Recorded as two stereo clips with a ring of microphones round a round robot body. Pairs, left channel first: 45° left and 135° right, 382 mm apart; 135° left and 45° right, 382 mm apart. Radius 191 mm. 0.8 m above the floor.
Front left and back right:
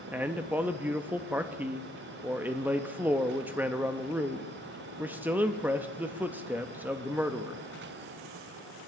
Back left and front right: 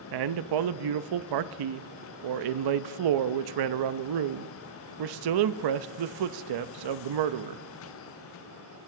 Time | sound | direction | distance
0.1 | a man speaking | 50° right | 0.6 m